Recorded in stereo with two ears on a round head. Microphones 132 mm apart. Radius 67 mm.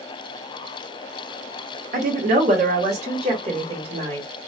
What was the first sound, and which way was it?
A woman speaking, 60° right (ahead or behind).